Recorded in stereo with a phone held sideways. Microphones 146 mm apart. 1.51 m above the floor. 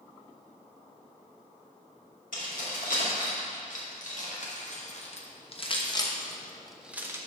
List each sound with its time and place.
2.3 s keys jangling: 75° left (ahead or behind), 2.5 m; by 7.2 s 20° right (ahead or behind), 0.7 m